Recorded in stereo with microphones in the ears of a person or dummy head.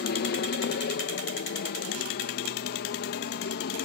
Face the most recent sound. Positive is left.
turn(degrees=50)  # may be behind; listen again after turning